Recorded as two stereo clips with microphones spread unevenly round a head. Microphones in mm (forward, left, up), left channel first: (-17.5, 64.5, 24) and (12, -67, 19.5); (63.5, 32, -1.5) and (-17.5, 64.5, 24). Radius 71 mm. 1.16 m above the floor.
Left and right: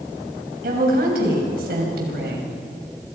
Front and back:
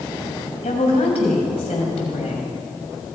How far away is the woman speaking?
About 6.5 m.